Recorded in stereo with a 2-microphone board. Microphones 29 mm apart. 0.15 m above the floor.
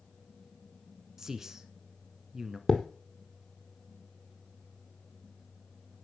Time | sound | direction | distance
1.2 | a man speaking | 20° right (ahead or behind) | 1.3 m
2.7 | a thud | 5° left (ahead or behind) | 1.7 m